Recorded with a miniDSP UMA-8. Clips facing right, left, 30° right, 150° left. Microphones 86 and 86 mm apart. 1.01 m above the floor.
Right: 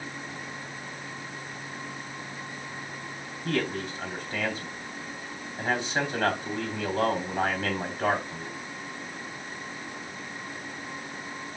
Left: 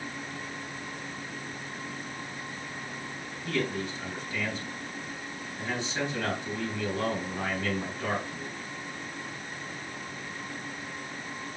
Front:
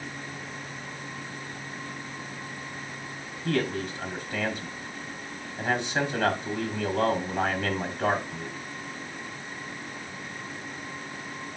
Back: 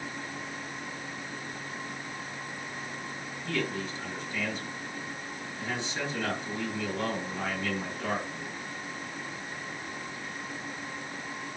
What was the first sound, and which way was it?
A man speaking, 50° right.